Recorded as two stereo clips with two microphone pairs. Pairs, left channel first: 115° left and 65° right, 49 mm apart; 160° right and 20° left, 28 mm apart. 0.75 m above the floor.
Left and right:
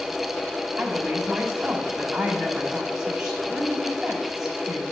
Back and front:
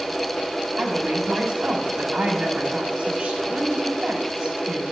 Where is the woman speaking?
10° left, 1.5 m.